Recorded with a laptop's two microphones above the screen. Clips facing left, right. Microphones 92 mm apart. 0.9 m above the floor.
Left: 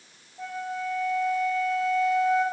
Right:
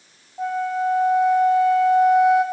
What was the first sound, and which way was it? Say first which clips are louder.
A flute: right 10 dB; 55° right (ahead or behind).